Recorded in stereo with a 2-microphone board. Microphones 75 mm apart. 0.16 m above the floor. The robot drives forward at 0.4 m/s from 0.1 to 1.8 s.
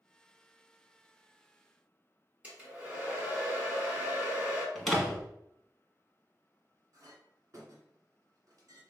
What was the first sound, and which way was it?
A hair dryer, 20° right (ahead or behind).